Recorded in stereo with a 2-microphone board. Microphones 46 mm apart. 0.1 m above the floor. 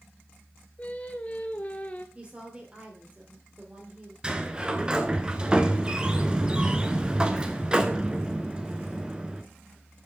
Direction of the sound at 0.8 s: 30° left (ahead or behind).